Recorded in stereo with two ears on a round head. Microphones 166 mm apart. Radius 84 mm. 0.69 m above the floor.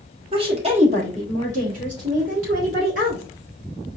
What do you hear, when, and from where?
0.3 s a woman speaking: 25° right (ahead or behind), 1.3 m; by 3.2 s 50° right (ahead or behind), 3 m